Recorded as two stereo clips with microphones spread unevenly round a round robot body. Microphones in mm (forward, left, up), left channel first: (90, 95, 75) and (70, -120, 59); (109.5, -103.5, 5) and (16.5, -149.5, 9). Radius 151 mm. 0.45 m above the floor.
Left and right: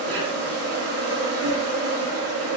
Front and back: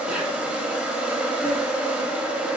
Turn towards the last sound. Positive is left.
turn(degrees=-75)